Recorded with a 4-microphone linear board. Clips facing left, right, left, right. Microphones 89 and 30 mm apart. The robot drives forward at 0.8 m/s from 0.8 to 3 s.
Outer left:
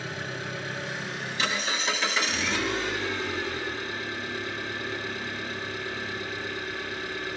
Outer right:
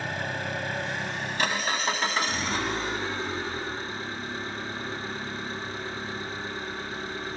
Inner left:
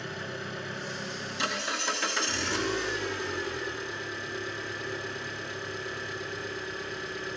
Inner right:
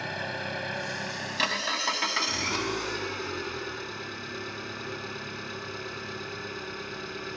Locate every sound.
0.0 s an engine running: 65° right (ahead or behind), 2.0 m; by 7.4 s 35° right (ahead or behind), 3 m